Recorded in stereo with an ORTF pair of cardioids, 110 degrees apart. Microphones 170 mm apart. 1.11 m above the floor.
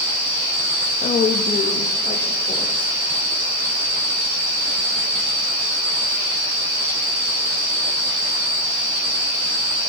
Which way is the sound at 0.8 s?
50° left.